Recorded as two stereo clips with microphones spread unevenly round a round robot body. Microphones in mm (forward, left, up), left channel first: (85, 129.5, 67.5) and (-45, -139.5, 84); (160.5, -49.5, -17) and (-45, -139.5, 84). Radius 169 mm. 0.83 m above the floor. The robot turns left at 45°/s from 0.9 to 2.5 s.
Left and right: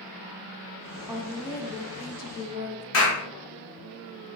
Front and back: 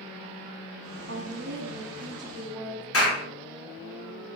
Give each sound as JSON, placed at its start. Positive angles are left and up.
{"t": 1.1, "sound": "a woman speaking", "azimuth_deg": 155, "distance_m": 0.5}
{"t": 2.9, "sound": "a clap", "azimuth_deg": 30, "distance_m": 1.3}